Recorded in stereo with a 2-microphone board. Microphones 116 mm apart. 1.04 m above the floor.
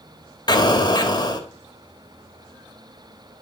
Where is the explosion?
35° left (ahead or behind), 1.7 m.